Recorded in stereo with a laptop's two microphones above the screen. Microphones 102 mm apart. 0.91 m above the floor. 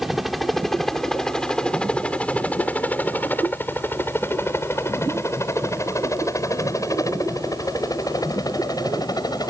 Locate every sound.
0.0 s a helicopter: centre (ahead or behind); by 9.5 s 40° left (ahead or behind)